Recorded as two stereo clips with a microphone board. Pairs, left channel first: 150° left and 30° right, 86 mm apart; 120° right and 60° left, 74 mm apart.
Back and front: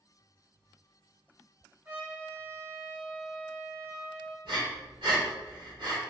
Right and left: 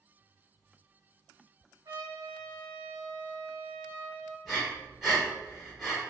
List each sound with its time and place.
1.9 s a trumpet: 35° left, 1.6 m
4.5 s breathing: 30° right, 1.1 m